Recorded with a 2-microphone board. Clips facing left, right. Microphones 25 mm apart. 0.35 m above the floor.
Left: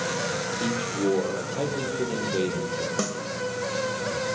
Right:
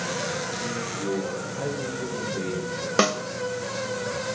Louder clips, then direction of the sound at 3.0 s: Right 7 dB; 50° right (ahead or behind).